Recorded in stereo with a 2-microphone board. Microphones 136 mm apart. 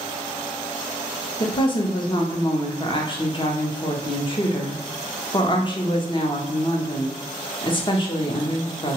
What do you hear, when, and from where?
1.4 s a woman speaking: 35° left (ahead or behind), 0.6 m